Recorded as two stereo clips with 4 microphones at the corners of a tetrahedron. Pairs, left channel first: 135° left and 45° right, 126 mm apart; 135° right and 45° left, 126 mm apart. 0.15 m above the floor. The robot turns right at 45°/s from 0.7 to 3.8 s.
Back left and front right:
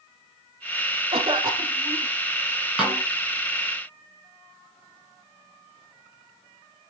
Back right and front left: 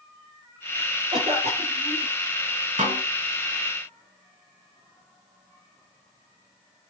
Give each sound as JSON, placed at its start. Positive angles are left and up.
{"t": 1.1, "sound": "a cough", "azimuth_deg": -5, "distance_m": 5.0}
{"t": 2.8, "sound": "a snare drum", "azimuth_deg": 40, "distance_m": 9.0}